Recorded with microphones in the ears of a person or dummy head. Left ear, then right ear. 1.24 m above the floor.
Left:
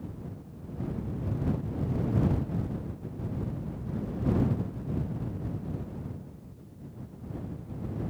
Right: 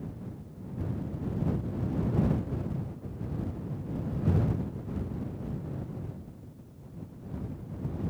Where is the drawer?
I don't hear a drawer.